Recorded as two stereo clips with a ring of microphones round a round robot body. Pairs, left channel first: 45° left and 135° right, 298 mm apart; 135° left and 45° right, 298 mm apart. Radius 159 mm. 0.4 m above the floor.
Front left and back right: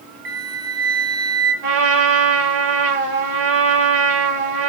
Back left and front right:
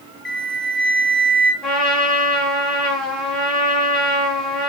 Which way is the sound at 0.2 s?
135° right.